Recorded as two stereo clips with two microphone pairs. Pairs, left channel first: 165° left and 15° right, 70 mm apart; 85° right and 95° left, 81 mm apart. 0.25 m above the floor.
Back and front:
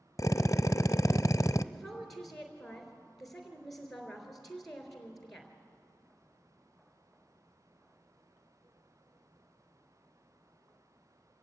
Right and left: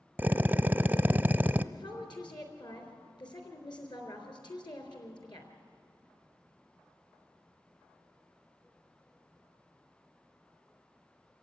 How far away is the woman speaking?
About 3.5 m.